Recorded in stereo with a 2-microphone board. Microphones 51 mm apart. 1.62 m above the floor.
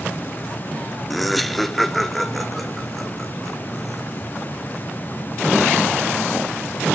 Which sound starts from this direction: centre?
Laughter, at 1.1 s.